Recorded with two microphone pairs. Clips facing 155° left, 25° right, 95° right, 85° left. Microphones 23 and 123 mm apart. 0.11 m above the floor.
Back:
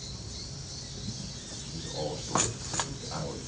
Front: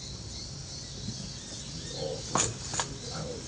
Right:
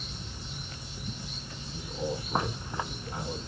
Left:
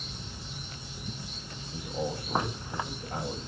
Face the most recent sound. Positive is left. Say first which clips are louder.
# back 1 dB, left 1 dB
turn(degrees=100)